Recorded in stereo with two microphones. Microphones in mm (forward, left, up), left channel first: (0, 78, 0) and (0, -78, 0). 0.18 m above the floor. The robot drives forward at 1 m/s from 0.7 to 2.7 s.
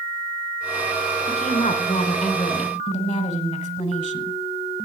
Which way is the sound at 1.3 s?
35° left (ahead or behind).